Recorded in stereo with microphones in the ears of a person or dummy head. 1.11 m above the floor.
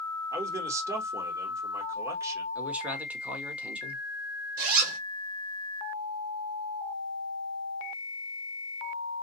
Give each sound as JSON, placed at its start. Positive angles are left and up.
{"t": 0.3, "sound": "a man speaking", "side_deg": -20, "distance_m": 1.3}
{"t": 2.5, "sound": "a man speaking", "side_deg": -10, "distance_m": 0.7}
{"t": 4.6, "sound": "a zipper", "side_deg": -55, "distance_m": 1.4}